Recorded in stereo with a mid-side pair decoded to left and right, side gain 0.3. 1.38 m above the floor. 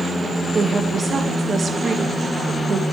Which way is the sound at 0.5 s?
55° right.